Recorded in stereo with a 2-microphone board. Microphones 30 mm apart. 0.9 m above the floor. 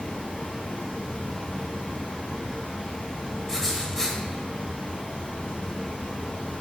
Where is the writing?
20° left (ahead or behind), 1.4 m.